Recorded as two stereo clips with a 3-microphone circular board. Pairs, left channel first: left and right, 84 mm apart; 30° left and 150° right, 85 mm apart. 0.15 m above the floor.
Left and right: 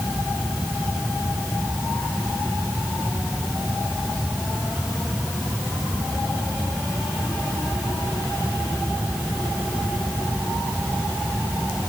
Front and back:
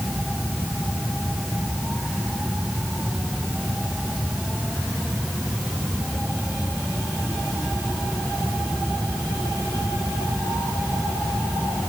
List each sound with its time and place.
Only background noise.